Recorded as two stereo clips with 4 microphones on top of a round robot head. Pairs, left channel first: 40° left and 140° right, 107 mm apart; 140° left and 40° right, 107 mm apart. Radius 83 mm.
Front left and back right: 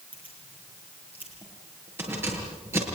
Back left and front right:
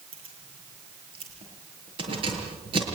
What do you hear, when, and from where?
0.1 s keys jangling: 70° right, 8.5 m; by 2.8 s 75° right, 6.5 m